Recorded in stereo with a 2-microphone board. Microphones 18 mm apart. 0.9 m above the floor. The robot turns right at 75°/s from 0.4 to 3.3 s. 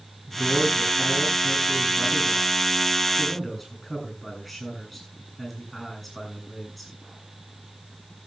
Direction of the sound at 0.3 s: 45° right.